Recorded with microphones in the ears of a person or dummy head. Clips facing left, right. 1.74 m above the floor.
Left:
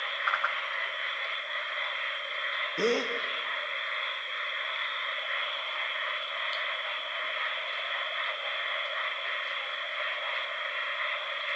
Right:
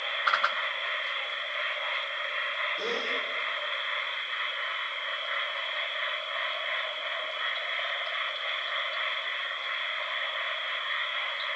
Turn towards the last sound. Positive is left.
turn(degrees=45)  # may be behind; listen again after turning